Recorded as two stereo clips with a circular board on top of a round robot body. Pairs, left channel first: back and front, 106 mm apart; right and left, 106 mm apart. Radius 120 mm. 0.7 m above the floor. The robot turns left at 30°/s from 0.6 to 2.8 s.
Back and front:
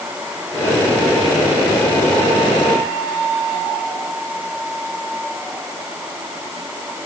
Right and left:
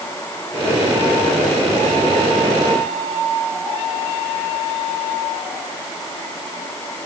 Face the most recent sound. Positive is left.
No sound to turn to.